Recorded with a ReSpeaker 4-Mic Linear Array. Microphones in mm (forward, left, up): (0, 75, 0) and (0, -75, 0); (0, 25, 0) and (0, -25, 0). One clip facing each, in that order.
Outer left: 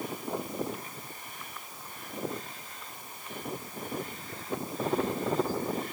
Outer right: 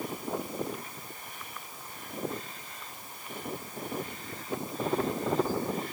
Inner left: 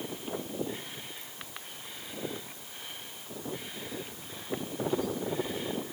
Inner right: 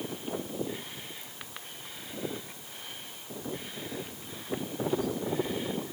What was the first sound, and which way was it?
Only background noise.